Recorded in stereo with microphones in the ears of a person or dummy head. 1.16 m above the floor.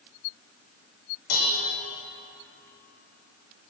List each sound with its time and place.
1.3 s dishes clattering: 50° left (ahead or behind), 1.0 m